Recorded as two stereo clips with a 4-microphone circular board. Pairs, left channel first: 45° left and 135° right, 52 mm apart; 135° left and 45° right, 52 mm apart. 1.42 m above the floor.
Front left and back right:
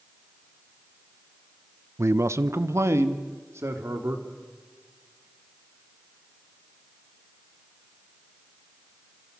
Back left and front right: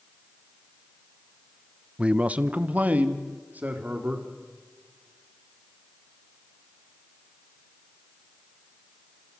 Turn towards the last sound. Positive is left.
turn(degrees=-100)